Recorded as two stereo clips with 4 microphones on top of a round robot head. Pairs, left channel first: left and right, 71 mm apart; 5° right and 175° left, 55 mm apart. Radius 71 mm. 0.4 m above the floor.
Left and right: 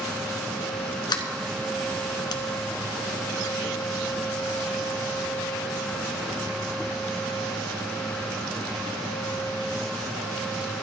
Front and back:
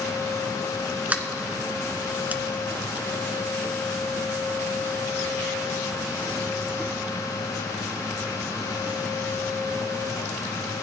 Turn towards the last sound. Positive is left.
turn(degrees=115)